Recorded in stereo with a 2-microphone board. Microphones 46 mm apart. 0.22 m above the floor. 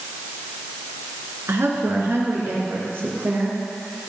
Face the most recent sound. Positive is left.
turn(degrees=-55)  # may be behind; listen again after turning